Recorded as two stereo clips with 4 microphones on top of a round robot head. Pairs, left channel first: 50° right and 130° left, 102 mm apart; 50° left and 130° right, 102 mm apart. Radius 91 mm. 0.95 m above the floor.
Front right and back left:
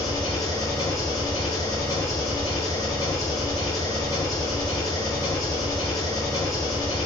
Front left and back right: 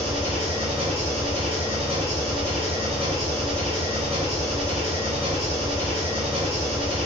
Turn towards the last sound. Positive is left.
turn(degrees=-105)